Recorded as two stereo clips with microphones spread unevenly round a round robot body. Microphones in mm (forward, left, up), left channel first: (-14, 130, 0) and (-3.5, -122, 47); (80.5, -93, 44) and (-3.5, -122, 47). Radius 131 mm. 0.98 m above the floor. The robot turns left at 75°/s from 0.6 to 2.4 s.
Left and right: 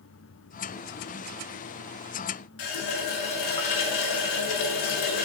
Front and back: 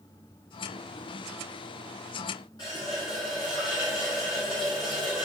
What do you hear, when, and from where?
2.6 s a running tap: 90° left, 0.7 m